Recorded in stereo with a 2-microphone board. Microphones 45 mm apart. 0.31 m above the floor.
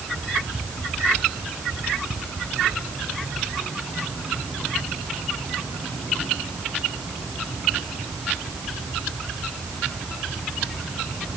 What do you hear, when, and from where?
Only background noise.